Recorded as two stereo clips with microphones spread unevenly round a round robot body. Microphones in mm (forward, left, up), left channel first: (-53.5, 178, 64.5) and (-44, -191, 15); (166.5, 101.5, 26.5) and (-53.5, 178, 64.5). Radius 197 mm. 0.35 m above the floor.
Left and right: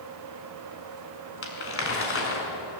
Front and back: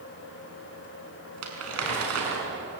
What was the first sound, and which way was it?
Crumpling, 150° left.